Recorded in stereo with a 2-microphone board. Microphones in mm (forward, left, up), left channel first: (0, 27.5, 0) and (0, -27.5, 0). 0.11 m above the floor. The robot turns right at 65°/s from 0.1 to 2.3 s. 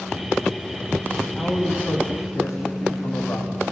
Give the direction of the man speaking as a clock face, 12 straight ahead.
12 o'clock.